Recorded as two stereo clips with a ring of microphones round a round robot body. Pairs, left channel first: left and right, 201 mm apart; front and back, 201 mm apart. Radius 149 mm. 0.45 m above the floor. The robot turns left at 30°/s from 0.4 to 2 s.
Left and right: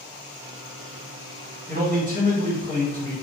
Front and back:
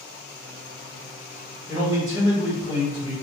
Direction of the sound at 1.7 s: 105° right.